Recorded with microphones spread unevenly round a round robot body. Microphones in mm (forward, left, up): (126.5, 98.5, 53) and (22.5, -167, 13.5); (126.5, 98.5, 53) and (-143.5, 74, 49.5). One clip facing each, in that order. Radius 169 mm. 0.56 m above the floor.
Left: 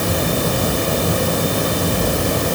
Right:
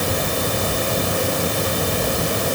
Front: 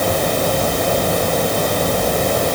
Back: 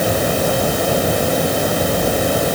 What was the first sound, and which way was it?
Only background noise.